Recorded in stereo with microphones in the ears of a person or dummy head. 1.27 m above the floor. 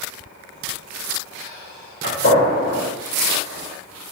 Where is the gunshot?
60° left (ahead or behind), 1.8 m.